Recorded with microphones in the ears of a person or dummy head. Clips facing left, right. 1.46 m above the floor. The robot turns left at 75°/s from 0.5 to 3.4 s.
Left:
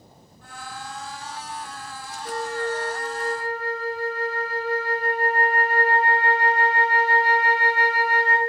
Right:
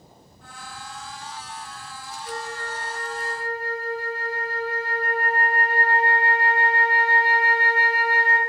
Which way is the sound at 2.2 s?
150° left.